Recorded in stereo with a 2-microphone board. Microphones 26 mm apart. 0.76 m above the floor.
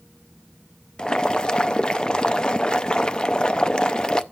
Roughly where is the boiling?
Left.